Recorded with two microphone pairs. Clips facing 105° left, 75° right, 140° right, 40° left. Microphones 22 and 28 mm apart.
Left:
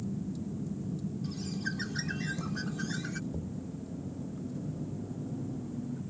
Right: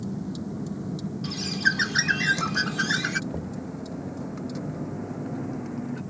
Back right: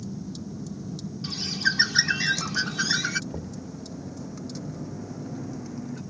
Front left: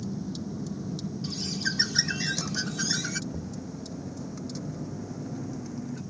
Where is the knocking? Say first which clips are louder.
Right 6 dB, back right 1 dB; 85° right.